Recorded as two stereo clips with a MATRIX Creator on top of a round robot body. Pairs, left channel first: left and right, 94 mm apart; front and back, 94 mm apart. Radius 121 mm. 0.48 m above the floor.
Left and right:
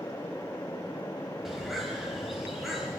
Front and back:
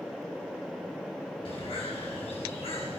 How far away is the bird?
About 4.5 m.